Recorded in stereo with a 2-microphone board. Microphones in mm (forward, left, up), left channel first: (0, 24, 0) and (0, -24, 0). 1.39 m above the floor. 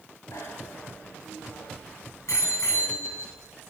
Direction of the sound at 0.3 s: 80° left.